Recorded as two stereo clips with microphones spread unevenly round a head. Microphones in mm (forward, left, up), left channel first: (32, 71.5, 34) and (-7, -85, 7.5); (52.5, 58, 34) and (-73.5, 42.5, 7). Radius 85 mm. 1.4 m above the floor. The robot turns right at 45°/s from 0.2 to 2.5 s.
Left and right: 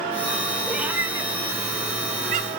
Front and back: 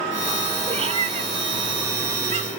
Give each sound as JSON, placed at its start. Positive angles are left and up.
{"t": 0.7, "sound": "a cat meowing", "azimuth_deg": 160, "distance_m": 0.8}